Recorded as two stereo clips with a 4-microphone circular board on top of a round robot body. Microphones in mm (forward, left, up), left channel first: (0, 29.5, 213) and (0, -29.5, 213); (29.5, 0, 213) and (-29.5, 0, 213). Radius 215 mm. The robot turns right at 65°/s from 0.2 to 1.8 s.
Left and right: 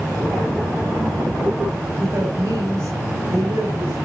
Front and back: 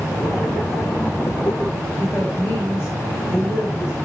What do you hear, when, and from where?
2.0 s a woman speaking: 45° right, 4 m